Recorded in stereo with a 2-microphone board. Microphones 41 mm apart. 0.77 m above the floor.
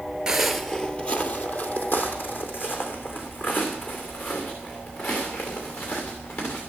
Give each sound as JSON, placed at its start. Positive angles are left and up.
{"t": 0.3, "sound": "footsteps", "side_deg": -10, "distance_m": 0.8}